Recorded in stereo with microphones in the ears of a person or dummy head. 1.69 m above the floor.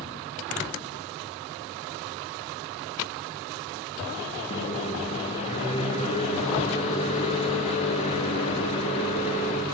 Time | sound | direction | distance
4.5 | a microwave | 30° left (ahead or behind) | 0.7 m